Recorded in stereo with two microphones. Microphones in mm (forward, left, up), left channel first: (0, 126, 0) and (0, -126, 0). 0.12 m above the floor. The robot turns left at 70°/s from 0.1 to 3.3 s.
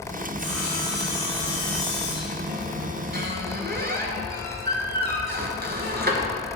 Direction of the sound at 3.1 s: 40° right (ahead or behind).